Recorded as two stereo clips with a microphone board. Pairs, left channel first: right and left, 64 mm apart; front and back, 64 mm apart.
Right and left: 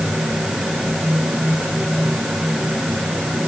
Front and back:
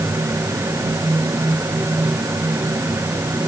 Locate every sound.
Only background noise.